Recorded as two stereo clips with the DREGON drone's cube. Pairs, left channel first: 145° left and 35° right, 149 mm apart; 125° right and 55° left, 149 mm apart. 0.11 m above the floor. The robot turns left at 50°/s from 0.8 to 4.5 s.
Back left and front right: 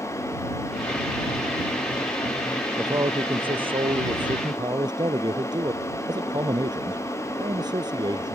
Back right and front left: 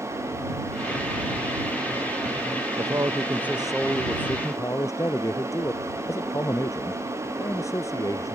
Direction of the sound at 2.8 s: 15° left.